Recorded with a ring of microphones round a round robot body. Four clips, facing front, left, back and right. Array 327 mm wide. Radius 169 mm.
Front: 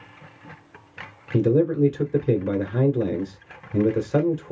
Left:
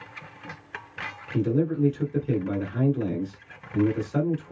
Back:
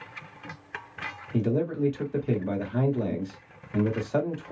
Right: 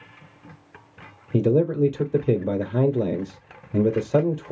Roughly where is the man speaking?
Ahead right.